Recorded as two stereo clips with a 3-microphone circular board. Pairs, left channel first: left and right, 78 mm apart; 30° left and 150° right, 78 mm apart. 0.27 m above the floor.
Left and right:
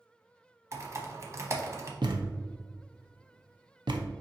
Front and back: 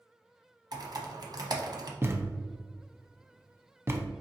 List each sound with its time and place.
0.7 s typing on a keyboard: 135° right, 0.8 m
2.0 s a thud: 90° right, 0.6 m